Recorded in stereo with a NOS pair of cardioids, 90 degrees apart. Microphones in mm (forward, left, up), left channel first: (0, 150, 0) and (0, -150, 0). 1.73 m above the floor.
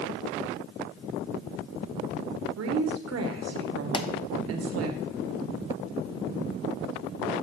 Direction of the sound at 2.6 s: 55° right.